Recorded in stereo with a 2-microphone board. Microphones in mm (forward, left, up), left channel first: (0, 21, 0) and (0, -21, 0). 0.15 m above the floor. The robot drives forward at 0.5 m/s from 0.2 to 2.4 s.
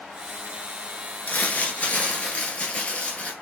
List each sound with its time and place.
1.3 s crumpling: 40° left (ahead or behind), 1.1 m; by 3.3 s 30° left (ahead or behind), 1.5 m